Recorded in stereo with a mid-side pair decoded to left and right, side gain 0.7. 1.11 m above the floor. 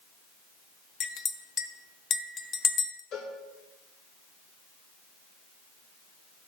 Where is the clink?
40° left, 0.9 m.